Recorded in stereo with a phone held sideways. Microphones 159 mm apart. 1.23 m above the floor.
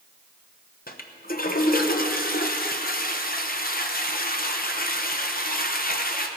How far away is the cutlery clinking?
I don't hear cutlery clinking.